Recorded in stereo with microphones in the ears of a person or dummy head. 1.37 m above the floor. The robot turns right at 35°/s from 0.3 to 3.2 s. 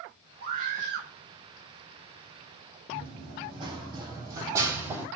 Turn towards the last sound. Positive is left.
turn(degrees=-10)  # may be behind; listen again after turning